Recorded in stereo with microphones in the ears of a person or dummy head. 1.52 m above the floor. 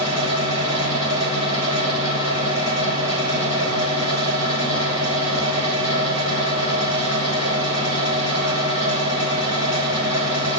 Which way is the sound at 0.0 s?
70° left (ahead or behind).